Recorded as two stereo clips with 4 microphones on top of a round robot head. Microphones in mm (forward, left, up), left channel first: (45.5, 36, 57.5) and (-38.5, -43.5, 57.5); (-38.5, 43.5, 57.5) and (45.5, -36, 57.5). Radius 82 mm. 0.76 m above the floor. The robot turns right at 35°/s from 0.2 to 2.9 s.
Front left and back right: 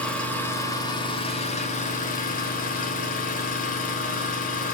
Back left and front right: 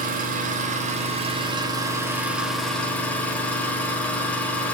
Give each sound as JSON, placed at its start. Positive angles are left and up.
{"t": 0.0, "sound": "an engine running", "azimuth_deg": -40, "distance_m": 2.5}